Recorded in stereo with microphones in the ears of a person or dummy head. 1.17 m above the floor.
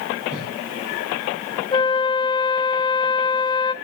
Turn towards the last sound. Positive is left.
turn(degrees=25)  # may be behind; listen again after turning